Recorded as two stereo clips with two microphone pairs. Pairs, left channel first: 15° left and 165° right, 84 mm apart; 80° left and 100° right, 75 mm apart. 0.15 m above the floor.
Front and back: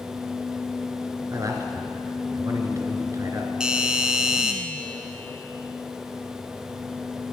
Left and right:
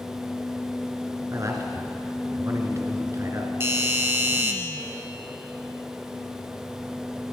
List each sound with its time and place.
1.3 s a man speaking: 130° right, 2.5 m
3.6 s a doorbell: 90° right, 1.8 m